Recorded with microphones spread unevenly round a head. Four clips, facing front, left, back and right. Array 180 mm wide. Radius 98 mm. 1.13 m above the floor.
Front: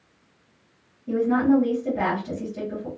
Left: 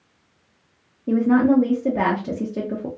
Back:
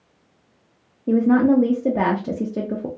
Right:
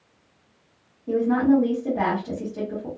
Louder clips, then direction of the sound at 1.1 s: Left 2 dB, back 4 dB; 150° left.